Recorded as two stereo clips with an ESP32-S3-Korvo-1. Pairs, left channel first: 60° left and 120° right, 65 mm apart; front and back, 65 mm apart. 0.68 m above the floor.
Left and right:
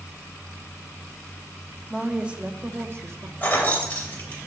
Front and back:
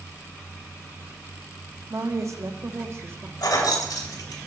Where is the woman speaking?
155° left, 1.0 m; by 3.3 s 135° right, 1.0 m.